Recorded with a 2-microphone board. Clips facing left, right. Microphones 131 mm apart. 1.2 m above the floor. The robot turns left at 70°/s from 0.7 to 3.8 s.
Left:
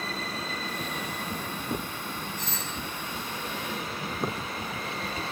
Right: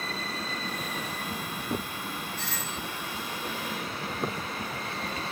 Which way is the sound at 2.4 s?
15° left (ahead or behind).